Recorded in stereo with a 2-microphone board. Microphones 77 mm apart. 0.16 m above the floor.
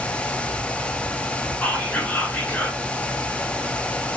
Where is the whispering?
20° left (ahead or behind), 1.5 m.